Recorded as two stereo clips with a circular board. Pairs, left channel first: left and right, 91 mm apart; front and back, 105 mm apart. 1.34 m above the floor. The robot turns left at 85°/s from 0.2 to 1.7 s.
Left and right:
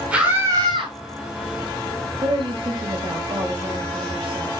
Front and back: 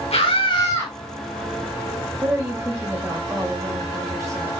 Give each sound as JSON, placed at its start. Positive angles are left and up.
{"t": 0.1, "sound": "a scream", "azimuth_deg": -15, "distance_m": 5.5}
{"t": 2.2, "sound": "a woman speaking", "azimuth_deg": -120, "distance_m": 7.0}